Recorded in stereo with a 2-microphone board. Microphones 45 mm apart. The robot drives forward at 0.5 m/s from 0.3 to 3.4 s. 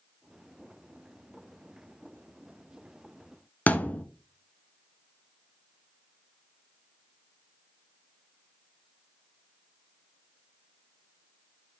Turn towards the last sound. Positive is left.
turn(degrees=35)  # may be behind; listen again after turning